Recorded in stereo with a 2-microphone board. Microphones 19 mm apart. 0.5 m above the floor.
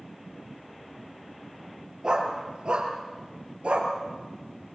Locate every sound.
2.0 s a dog barking: 35° right (ahead or behind), 4.5 m; by 3.9 s 70° right (ahead or behind), 4 m